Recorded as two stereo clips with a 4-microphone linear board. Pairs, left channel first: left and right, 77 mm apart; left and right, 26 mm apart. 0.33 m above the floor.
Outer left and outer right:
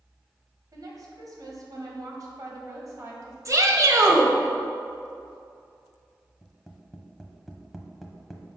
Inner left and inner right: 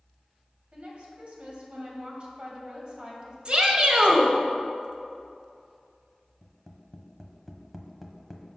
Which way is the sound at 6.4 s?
Centre (ahead or behind).